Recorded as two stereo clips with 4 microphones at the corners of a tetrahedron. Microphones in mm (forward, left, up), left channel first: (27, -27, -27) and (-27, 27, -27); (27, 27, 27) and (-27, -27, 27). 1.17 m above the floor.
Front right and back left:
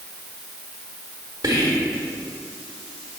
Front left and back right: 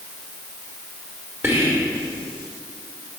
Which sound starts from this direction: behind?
Whispering, at 1.4 s.